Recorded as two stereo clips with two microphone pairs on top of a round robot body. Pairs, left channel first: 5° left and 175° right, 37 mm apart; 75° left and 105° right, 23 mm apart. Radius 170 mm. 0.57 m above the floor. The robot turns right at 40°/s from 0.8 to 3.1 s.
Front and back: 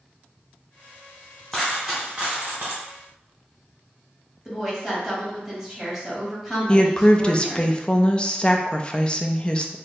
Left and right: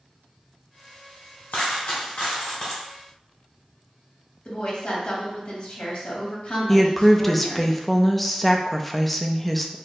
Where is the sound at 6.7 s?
20° left, 0.6 m.